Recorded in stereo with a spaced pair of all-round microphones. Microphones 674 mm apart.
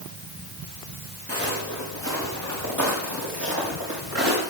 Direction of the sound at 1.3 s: 20° right (ahead or behind).